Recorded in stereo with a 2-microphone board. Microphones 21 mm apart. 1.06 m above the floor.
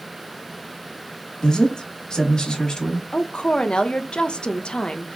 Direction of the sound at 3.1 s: 55° left (ahead or behind).